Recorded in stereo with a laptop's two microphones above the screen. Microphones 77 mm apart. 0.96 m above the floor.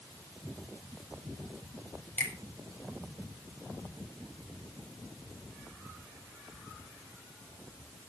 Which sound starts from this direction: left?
A finger snap, at 2.2 s.